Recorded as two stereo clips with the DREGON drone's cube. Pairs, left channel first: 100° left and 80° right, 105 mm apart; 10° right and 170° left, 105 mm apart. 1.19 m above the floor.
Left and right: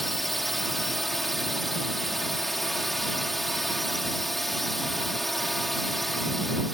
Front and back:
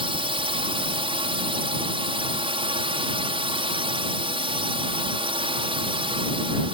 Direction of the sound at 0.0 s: 170° right.